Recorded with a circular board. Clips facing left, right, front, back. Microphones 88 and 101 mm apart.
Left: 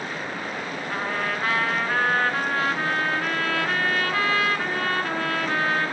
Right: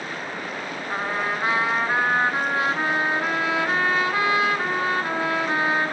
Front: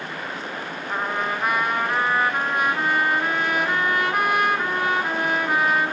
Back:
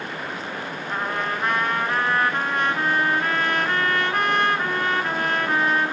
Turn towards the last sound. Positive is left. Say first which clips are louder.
# right 2 dB, front 1 dB
turn(degrees=-65)